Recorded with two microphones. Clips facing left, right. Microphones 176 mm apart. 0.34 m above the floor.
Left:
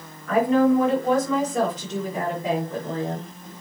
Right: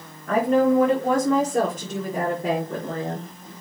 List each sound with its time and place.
0.3 s a woman speaking: 40° right (ahead or behind), 5.5 m; by 3.3 s 60° right (ahead or behind), 5 m